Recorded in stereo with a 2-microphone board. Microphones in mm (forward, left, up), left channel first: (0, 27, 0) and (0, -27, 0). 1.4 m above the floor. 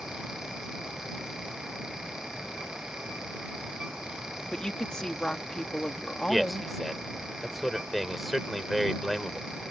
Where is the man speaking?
Centre (ahead or behind).